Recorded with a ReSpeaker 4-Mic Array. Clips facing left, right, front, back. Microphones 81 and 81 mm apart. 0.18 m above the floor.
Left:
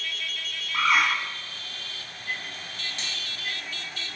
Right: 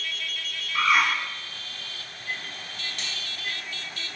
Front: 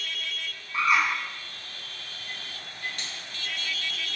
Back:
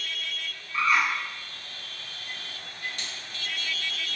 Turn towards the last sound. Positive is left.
turn(degrees=35)